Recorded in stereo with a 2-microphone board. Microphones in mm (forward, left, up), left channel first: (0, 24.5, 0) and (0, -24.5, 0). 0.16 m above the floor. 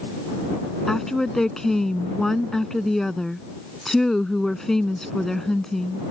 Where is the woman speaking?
10° left (ahead or behind).